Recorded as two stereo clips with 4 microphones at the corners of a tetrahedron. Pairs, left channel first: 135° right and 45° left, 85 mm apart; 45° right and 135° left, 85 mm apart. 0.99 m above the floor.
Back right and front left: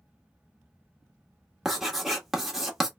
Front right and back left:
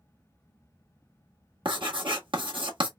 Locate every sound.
1.6 s writing: 130° left, 1.4 m